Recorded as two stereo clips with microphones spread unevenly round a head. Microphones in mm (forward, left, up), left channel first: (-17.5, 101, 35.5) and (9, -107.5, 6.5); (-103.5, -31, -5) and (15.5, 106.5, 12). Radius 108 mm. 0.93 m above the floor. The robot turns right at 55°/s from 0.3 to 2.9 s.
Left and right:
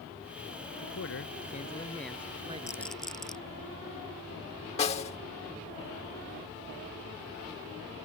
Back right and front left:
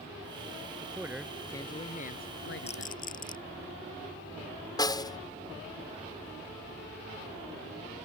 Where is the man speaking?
115° left; by 3.0 s 130° right.